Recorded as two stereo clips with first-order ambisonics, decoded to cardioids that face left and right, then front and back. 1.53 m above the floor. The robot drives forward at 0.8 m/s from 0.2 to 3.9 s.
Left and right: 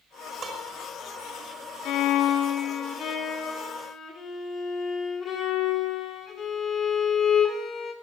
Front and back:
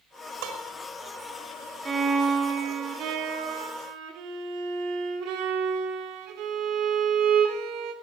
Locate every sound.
0.4 s dishes clattering: 160° right, 3 m
1.9 s a violin: 110° left, 1.3 m; by 7.9 s 155° left, 2.5 m